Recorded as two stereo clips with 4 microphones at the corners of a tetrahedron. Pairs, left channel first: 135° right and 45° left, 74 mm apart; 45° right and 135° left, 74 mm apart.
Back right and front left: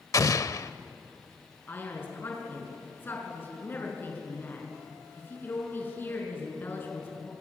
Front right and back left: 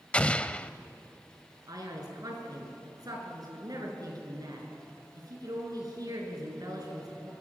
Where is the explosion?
115° right, 0.7 m.